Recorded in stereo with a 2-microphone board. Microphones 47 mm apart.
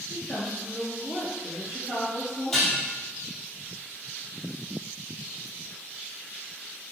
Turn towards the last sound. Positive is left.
turn(degrees=5)  # may be behind; listen again after turning